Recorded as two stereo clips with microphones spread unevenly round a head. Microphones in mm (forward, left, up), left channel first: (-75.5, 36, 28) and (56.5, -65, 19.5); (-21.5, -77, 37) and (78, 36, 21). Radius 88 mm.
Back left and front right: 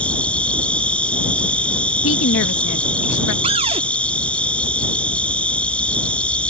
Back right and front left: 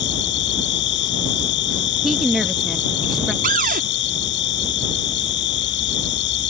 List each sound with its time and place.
0.0 s an insect: 135° right
2.0 s a woman speaking: 140° left
3.4 s a cupboard door: 20° left